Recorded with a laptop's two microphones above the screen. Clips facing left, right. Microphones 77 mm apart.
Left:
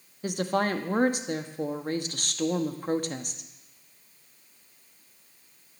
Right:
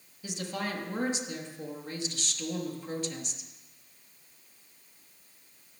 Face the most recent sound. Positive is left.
turn(degrees=45)  # may be behind; listen again after turning